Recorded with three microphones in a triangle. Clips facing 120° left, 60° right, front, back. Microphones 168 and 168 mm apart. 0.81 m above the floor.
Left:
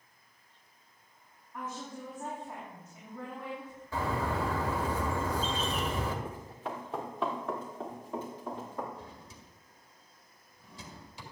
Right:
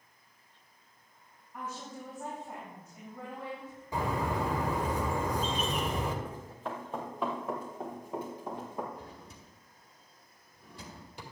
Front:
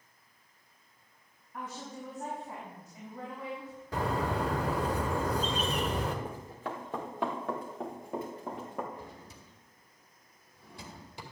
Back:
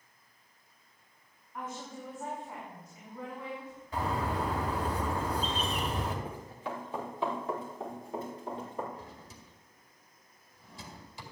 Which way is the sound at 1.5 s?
20° left.